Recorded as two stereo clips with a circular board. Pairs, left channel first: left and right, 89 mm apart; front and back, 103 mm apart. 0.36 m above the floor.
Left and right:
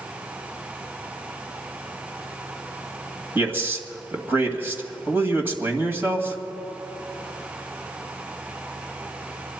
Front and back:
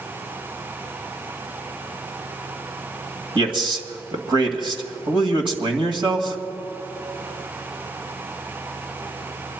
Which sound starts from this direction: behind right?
A man speaking, at 3.4 s.